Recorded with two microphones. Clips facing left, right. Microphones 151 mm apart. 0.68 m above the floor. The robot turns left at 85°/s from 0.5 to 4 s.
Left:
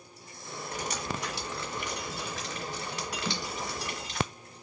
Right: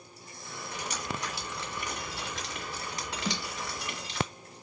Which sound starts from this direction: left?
Dripping, at 0.7 s.